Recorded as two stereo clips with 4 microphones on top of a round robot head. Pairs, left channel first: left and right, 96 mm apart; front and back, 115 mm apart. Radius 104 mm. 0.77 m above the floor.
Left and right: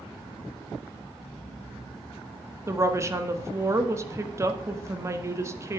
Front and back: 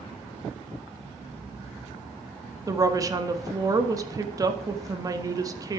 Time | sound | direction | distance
2.7 | a woman speaking | 135° right | 1.0 m